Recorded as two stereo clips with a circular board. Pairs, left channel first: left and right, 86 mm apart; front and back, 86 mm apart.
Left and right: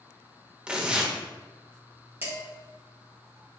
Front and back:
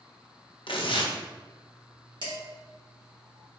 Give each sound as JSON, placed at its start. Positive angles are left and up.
{"t": 0.7, "sound": "tearing paper", "azimuth_deg": -10, "distance_m": 0.6}
{"t": 2.2, "sound": "dishes clattering", "azimuth_deg": -155, "distance_m": 1.5}